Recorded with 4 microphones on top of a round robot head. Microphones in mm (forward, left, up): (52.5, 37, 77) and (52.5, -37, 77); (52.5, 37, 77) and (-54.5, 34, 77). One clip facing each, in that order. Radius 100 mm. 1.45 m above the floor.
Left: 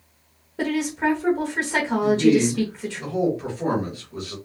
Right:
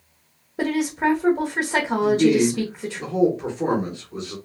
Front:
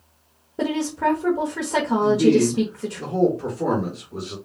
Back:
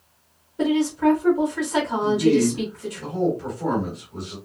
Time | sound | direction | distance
0.6 | a woman speaking | 20° right | 0.9 m
2.0 | a man speaking | 30° right | 1.3 m